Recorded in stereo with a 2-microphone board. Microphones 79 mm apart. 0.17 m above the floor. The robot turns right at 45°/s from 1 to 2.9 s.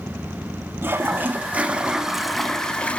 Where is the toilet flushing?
60° right, 0.6 m; by 3.0 s 25° left, 0.6 m.